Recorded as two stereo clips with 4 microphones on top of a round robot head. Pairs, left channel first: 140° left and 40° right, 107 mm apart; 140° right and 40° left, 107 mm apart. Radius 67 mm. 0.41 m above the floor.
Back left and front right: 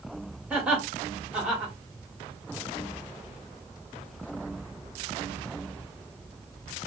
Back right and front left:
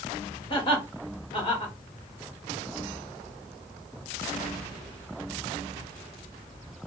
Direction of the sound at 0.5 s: 115° right.